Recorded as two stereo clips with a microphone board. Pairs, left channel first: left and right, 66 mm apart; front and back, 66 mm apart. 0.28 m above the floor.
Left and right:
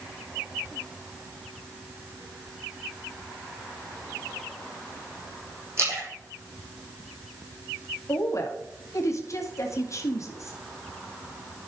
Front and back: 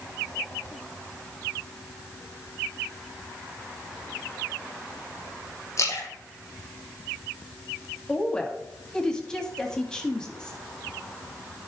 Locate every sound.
5.8 s a splash: 45° right, 3 m
8.1 s a woman speaking: 75° left, 1.9 m